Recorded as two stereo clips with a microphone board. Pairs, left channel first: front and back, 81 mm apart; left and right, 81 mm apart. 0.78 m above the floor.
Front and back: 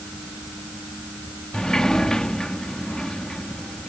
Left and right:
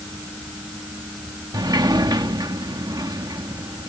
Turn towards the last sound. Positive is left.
turn(degrees=-80)